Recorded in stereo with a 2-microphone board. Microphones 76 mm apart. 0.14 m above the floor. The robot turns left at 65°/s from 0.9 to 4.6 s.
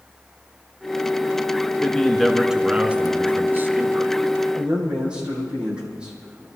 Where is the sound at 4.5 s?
10° right (ahead or behind), 5 m; by 6.5 s 15° right (ahead or behind), 5 m.